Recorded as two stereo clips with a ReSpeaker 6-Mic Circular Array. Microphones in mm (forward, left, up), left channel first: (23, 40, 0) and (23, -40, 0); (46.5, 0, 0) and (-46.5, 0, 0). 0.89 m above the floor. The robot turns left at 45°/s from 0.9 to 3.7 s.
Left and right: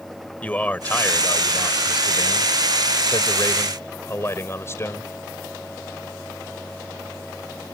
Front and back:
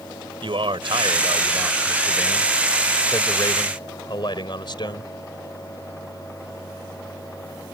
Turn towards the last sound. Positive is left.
turn(degrees=35)